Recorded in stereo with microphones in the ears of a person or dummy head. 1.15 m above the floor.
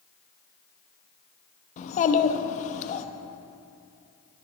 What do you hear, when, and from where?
1.8 s a child speaking: 45° left (ahead or behind), 0.8 m